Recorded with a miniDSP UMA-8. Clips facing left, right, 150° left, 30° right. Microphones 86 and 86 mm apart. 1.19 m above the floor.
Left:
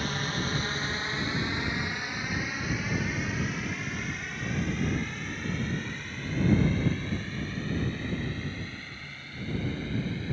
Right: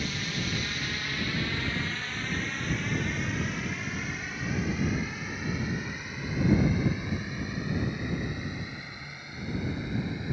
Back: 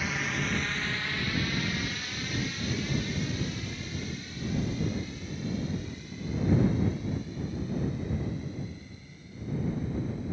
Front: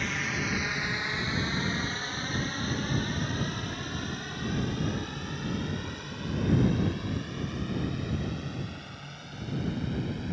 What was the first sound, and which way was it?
A drone, 65° left.